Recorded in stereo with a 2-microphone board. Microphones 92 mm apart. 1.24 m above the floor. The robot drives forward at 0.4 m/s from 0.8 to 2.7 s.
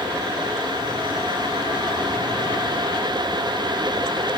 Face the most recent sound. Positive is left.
No sound to turn to.